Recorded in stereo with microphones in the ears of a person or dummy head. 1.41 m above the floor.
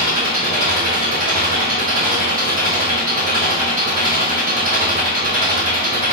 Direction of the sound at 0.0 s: 35° right (ahead or behind).